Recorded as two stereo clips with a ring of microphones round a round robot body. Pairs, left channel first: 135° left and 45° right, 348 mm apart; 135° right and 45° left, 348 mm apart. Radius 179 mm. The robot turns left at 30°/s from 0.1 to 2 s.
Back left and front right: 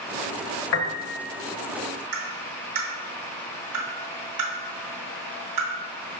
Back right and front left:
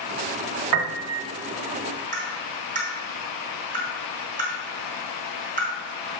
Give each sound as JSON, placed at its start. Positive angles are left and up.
{"t": 0.7, "sound": "a piano", "azimuth_deg": 80, "distance_m": 1.0}
{"t": 2.1, "sound": "tapping", "azimuth_deg": -20, "distance_m": 2.5}